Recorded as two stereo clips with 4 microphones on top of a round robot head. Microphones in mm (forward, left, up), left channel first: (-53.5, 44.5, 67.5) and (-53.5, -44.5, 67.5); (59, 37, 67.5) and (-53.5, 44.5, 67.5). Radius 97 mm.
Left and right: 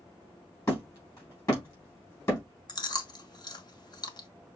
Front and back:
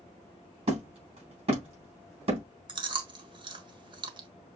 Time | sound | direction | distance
0.7 | hammering | 145° left | 4 m
2.7 | chewing | 130° left | 1.2 m